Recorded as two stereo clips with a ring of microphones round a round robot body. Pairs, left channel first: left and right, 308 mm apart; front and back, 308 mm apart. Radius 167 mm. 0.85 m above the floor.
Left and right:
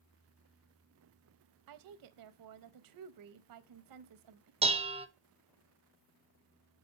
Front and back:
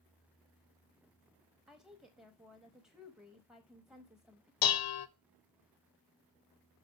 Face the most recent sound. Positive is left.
turn(degrees=-20)